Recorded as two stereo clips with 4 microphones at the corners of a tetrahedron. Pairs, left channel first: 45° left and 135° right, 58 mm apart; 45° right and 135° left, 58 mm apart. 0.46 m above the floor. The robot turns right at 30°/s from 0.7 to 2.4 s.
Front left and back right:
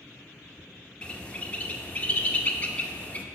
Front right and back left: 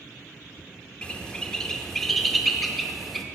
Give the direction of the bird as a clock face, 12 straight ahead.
12 o'clock.